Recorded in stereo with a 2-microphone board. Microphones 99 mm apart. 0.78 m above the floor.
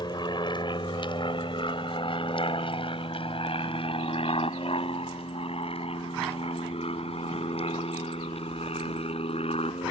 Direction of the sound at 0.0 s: 50° left (ahead or behind).